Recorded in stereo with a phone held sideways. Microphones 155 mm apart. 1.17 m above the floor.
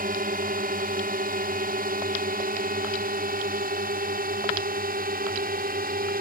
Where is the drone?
65° right (ahead or behind); by 6.2 s 70° right (ahead or behind).